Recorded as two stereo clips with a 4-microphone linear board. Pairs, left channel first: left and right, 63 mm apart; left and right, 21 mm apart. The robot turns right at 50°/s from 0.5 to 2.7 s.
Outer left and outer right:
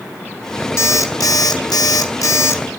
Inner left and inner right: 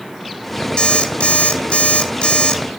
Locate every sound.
0.8 s an alarm clock: 45° left, 0.7 m; by 2.6 s 140° left, 0.7 m